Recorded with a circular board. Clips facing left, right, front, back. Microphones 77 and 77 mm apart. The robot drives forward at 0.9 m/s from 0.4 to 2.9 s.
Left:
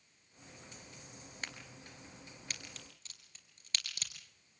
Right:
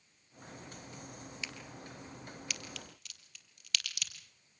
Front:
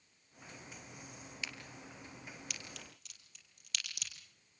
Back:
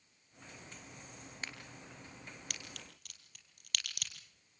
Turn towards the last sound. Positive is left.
turn(degrees=150)